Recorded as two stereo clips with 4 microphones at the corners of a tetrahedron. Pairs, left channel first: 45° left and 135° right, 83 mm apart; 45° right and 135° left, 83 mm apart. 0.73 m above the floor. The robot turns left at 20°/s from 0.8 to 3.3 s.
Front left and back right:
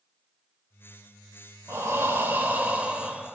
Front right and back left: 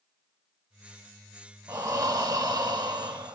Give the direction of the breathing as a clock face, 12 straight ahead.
6 o'clock.